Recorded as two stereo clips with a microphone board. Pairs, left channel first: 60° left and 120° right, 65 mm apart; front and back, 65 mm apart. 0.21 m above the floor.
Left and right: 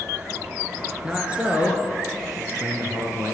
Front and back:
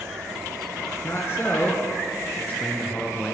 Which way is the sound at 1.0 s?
45° right.